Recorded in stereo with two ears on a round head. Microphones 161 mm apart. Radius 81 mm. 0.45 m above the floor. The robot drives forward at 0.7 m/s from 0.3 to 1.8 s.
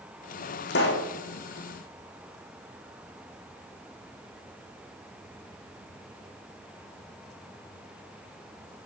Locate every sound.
0.7 s a pop: 70° left (ahead or behind), 4 m; by 1.1 s 65° left (ahead or behind), 4.5 m